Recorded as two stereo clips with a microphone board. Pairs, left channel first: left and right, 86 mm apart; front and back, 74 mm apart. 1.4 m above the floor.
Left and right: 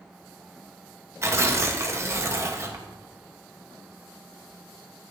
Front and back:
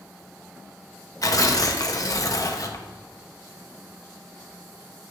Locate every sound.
1.2 s tearing paper: 35° right, 1.0 m